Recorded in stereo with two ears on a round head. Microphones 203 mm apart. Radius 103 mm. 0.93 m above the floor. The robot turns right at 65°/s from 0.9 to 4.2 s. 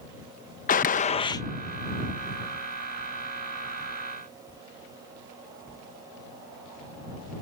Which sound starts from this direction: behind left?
A gunshot, at 0.7 s.